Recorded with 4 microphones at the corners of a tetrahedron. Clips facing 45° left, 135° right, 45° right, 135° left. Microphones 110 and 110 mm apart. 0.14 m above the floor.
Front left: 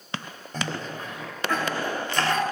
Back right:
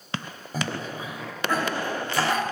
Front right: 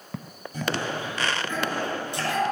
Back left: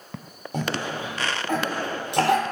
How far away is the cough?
About 4 m.